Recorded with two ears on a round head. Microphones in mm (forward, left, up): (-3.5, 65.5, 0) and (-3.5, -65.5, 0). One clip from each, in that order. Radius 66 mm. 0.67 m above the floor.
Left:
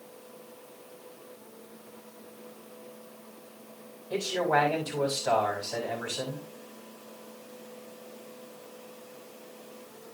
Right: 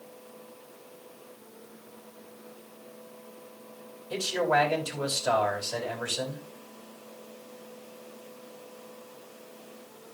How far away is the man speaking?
About 4.5 m.